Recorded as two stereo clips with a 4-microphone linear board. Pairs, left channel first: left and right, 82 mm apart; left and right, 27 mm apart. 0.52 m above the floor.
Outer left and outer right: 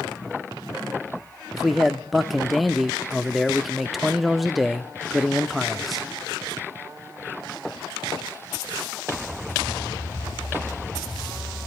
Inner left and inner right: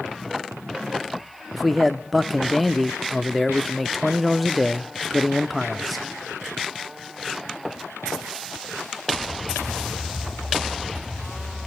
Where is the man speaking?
Centre (ahead or behind), 0.6 m.